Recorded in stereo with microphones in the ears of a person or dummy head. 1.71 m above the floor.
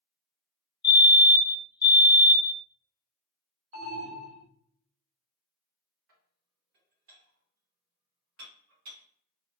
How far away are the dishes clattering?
About 1.2 m.